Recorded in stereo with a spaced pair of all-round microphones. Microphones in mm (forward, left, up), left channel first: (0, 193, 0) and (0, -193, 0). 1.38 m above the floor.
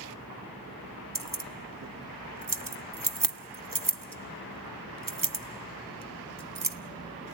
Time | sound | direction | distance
1.1 | keys jangling | 60° right (ahead or behind) | 0.9 m